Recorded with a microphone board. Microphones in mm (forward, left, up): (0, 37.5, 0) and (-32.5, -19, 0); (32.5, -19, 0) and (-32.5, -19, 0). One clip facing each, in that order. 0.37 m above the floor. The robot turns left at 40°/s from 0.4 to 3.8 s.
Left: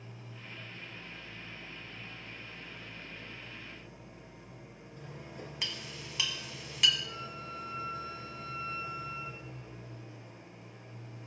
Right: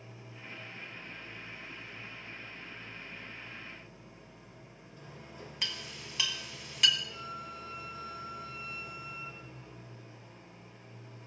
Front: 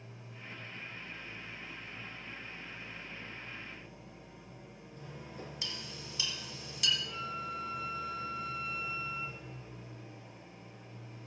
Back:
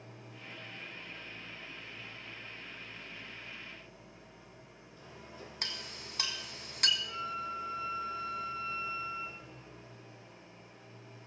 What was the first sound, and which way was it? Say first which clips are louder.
An engine running: even, even; 170° left.